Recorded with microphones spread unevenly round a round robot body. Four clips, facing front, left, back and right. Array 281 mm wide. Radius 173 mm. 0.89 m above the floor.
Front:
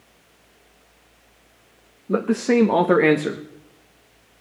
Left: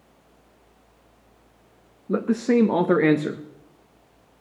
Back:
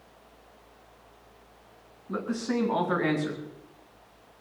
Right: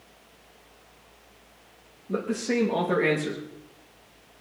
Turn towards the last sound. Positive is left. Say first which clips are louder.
# left 6 dB, front 11 dB
turn(degrees=40)